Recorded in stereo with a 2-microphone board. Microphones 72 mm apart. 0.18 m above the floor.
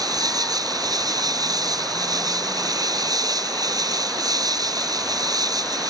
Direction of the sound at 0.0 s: 65° right (ahead or behind).